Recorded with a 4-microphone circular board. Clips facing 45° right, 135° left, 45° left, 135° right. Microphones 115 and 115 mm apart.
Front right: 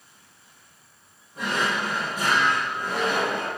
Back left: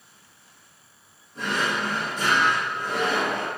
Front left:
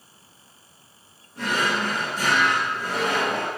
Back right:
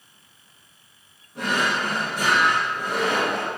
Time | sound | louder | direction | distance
1.4 | a drawer | even, even | 125° right | 1.9 m